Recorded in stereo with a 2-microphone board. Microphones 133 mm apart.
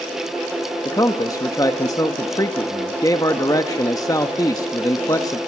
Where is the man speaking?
25° left (ahead or behind), 1.0 m.